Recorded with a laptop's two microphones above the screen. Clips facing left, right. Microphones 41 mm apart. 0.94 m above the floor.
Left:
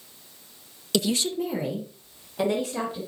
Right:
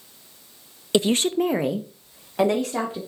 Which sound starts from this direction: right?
A woman speaking, at 0.9 s.